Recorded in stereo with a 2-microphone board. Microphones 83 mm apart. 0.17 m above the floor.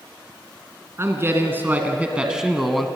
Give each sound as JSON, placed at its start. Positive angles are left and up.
{"t": 1.0, "sound": "a man speaking", "side_deg": -30, "distance_m": 2.0}